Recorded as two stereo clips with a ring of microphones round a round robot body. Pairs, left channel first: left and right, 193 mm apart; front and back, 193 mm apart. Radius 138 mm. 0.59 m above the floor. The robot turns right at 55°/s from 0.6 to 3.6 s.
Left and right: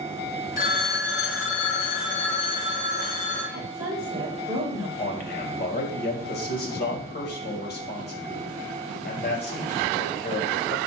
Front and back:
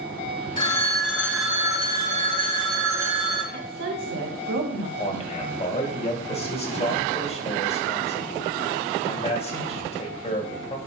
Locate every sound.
0.6 s a phone ringing: 45° left, 3.5 m; by 3.4 s 160° right, 3.5 m
3.5 s a woman speaking: 170° right, 2 m; by 4.9 s 165° right, 2 m
5.0 s a man speaking: 55° left, 2.5 m